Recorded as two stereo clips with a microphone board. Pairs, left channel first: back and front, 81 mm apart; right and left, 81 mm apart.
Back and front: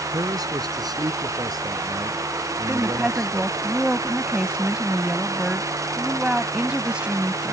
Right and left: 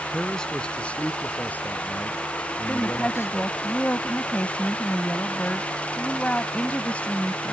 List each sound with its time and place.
0.1 s a man speaking: 5° right; by 3.6 s 35° right
2.7 s a woman speaking: 55° right